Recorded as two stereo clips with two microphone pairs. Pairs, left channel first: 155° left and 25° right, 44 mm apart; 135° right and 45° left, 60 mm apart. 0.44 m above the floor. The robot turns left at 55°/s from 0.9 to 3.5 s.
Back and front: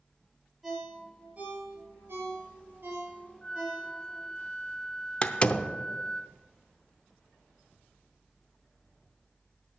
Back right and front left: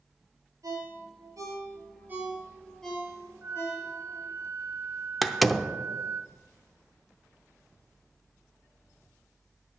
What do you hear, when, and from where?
0.6 s a ringtone: 55° left, 4 m; by 4.3 s 90° right, 4 m
3.4 s a flute: 85° left, 0.7 m; by 6.2 s 80° left, 0.7 m
5.2 s a door slam: 140° left, 0.6 m